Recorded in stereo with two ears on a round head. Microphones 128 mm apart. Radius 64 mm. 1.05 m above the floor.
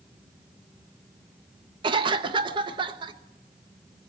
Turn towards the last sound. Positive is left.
turn(degrees=-35)  # may be behind; listen again after turning